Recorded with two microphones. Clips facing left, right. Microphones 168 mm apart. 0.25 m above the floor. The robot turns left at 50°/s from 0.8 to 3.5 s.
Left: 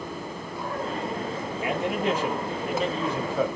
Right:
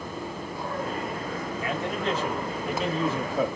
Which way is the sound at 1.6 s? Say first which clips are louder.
Left 4 dB; 20° left (ahead or behind).